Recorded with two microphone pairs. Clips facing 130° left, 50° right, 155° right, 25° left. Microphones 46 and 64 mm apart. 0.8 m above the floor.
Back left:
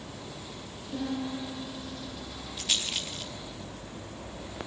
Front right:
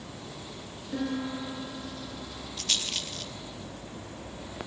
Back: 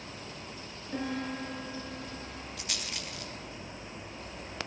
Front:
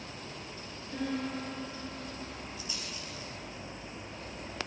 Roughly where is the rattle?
Behind right.